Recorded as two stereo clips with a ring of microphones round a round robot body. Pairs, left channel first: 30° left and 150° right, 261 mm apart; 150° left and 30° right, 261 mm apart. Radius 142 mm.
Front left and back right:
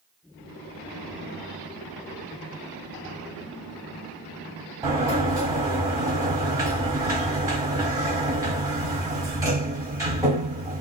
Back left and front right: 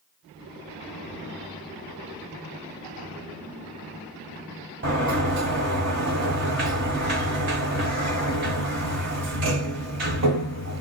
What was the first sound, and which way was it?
A sliding door, 75° right.